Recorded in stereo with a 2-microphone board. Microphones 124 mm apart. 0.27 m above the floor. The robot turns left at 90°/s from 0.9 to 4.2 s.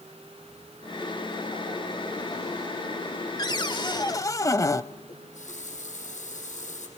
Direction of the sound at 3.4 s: 120° left.